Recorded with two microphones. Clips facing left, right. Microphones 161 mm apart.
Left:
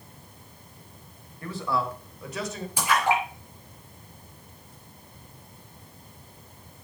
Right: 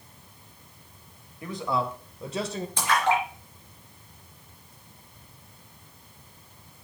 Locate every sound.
1.4 s a man speaking: 15° right (ahead or behind), 1.6 m; by 2.7 s 35° right (ahead or behind), 1.3 m
2.8 s a splash: 10° left (ahead or behind), 4 m